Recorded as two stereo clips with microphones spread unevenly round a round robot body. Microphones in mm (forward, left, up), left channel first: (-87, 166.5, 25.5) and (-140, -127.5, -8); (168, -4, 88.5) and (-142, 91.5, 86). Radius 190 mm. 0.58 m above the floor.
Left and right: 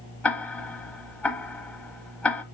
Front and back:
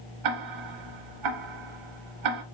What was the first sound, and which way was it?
Ticking, 160° left.